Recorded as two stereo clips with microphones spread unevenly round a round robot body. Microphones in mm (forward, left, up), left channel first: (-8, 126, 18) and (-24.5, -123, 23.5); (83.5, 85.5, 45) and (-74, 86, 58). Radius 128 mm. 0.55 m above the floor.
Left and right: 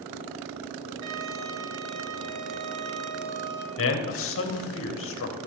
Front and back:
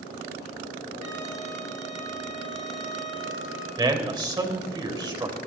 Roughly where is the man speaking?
Behind left.